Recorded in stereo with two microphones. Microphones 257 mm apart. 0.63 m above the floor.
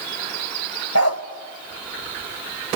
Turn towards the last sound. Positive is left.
turn(degrees=70)  # may be behind; listen again after turning